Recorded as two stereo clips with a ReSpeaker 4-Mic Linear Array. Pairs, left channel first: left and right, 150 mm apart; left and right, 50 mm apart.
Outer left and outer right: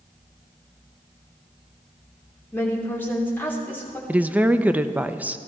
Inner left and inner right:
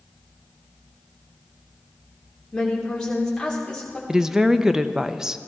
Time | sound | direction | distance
2.5 | a woman speaking | 15° left (ahead or behind) | 3 m
4.1 | a woman speaking | 10° right (ahead or behind) | 0.6 m